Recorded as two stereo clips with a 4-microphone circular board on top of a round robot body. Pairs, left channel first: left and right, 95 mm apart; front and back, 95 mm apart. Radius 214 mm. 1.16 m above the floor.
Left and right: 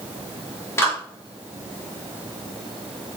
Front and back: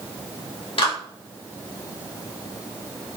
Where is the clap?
25° left, 4 m.